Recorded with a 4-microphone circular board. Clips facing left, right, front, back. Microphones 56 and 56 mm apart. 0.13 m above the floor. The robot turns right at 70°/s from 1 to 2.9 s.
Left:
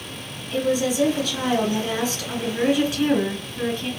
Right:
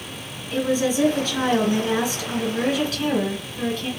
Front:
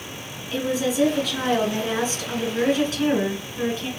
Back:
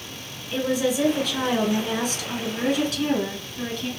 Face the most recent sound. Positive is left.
turn(degrees=30)